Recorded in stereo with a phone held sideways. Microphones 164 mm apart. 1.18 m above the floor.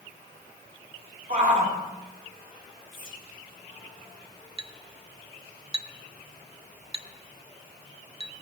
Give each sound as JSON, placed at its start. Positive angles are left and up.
{"t": 1.3, "sound": "a shout", "side_deg": -50, "distance_m": 3.5}
{"t": 2.9, "sound": "whispering", "side_deg": 30, "distance_m": 3.0}
{"t": 4.6, "sound": "a clink", "side_deg": -35, "distance_m": 0.5}